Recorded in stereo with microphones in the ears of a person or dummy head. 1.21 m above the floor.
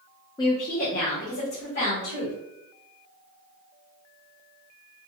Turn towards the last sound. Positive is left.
turn(degrees=70)  # may be behind; listen again after turning